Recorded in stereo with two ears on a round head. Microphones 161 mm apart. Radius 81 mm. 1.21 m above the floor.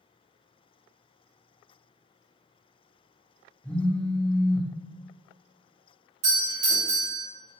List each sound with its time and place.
3.6 s a phone buzzing: 5° left (ahead or behind), 0.9 m
6.2 s a doorbell: 40° right (ahead or behind), 1.4 m